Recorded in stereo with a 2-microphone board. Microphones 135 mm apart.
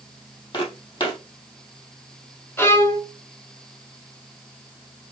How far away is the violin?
About 1.3 m.